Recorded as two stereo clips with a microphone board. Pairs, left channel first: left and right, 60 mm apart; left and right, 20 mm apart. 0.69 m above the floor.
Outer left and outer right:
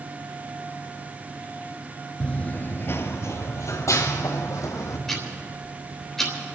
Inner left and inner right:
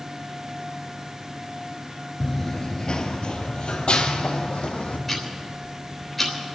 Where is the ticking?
5° left (ahead or behind), 3.5 m.